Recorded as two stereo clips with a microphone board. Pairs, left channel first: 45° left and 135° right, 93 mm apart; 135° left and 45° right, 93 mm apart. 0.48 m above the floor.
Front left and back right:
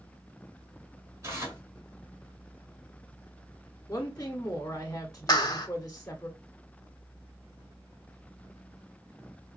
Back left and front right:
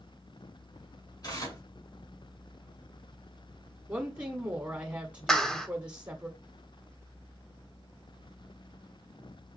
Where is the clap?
55° left, 0.7 m.